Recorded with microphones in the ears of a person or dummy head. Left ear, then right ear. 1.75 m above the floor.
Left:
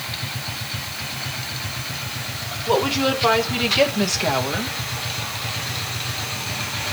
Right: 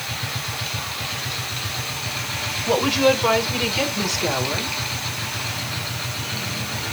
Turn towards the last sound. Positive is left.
turn(degrees=35)  # may be behind; listen again after turning